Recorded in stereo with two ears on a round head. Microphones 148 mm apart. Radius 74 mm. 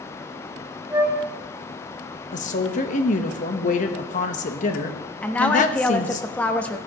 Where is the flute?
15° right (ahead or behind), 5.5 m.